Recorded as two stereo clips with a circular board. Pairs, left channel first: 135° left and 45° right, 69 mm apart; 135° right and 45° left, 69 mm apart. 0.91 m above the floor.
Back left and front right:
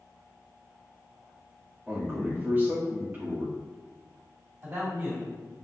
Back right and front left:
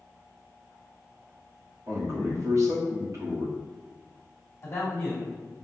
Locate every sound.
1.9 s a man speaking: 10° left, 2 m
4.6 s a man speaking: 95° right, 2 m